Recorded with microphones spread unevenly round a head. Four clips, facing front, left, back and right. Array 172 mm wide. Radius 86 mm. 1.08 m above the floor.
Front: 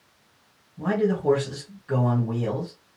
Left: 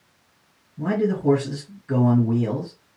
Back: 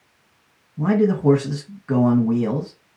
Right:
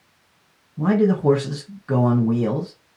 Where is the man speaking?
130° right, 1.1 m.